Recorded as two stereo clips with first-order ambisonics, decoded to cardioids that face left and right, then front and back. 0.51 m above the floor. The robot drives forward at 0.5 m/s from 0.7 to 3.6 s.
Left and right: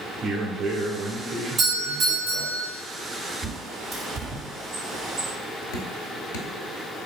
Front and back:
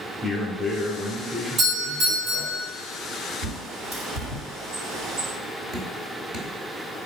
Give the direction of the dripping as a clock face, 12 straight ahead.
8 o'clock.